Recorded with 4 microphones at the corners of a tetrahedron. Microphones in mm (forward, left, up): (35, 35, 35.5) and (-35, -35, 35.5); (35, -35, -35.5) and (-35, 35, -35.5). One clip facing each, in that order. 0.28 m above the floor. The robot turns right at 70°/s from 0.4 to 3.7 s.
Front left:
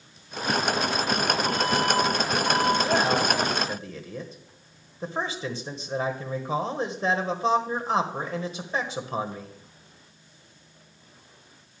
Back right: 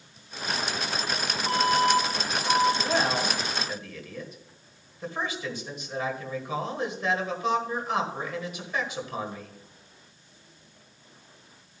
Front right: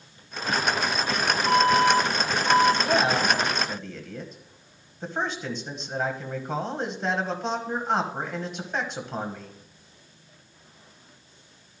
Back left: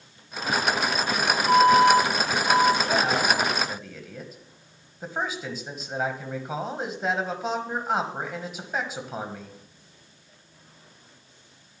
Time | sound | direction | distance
1.5 | an alarm | 55° right | 5 m
2.8 | a man speaking | 5° right | 1.5 m